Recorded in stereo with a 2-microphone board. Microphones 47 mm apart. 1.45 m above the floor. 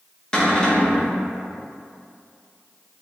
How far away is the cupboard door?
About 0.7 m.